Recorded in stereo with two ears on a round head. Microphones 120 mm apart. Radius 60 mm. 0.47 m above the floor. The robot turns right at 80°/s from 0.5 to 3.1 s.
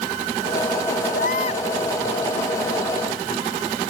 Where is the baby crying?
105° left; by 1.6 s 145° left.